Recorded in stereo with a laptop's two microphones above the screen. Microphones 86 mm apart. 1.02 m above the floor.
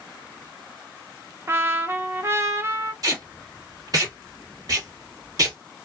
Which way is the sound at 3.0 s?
45° right (ahead or behind).